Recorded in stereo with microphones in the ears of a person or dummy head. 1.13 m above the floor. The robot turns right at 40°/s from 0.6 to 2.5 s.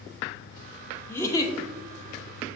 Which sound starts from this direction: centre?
A giggle, at 1.1 s.